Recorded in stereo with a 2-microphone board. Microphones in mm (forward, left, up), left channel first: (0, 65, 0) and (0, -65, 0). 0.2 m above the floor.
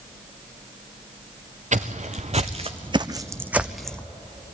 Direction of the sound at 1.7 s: 70° right (ahead or behind).